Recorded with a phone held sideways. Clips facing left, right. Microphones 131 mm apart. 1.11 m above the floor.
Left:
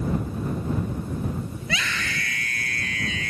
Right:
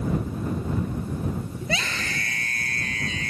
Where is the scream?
35° right (ahead or behind).